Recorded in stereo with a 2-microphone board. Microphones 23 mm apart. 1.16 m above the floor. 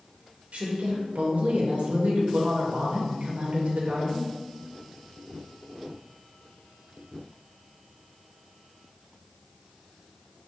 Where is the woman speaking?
80° right, 0.5 m.